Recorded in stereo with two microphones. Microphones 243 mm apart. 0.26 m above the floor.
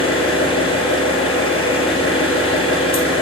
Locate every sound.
0.0 s an engine running: 25° left (ahead or behind), 0.9 m